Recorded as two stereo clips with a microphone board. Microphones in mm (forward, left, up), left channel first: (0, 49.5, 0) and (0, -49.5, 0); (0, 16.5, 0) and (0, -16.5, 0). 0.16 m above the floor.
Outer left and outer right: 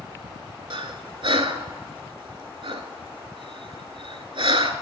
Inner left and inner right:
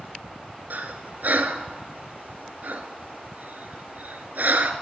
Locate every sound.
0.7 s breathing: 65° right (ahead or behind), 0.8 m